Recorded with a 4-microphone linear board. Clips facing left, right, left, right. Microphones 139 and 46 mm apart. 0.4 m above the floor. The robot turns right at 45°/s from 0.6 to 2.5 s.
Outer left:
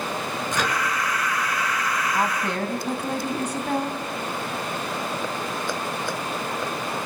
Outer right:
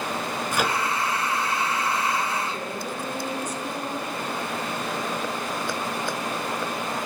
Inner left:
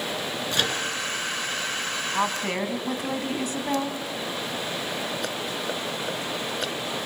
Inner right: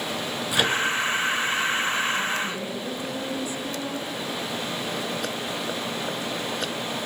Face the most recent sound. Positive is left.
turn(degrees=70)  # may be behind; listen again after turning